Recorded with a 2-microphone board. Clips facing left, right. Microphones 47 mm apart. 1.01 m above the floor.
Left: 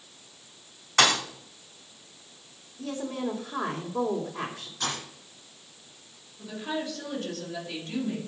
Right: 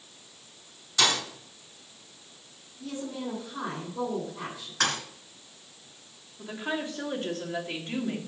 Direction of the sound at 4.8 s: 75° right (ahead or behind).